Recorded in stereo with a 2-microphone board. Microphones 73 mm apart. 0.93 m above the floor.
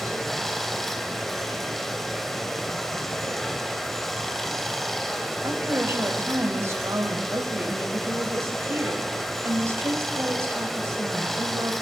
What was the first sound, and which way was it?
Running water, 5° left (ahead or behind).